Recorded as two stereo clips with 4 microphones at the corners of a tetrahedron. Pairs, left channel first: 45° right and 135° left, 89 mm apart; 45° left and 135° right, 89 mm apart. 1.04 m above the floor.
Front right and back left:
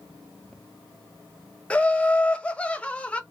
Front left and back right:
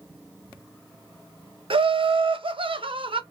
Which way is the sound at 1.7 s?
120° right.